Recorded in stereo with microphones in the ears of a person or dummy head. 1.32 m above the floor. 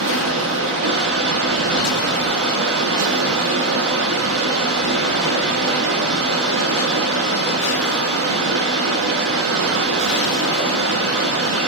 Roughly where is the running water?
Right.